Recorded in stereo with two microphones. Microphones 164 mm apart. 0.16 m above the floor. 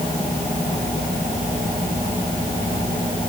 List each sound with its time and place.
Only background noise.